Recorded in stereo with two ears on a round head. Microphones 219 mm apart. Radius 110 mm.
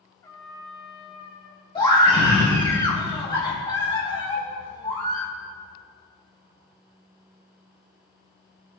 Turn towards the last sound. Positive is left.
turn(degrees=20)  # may be behind; listen again after turning